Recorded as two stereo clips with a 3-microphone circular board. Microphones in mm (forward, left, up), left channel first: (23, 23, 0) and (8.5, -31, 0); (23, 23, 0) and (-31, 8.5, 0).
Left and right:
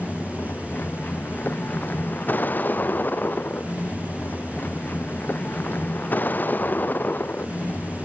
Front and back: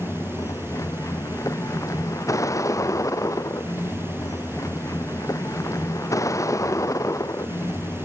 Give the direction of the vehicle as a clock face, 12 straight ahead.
11 o'clock.